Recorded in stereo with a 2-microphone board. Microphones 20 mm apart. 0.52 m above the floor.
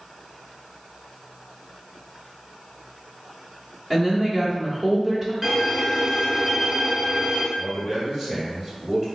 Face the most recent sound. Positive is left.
turn(degrees=-40)  # may be behind; listen again after turning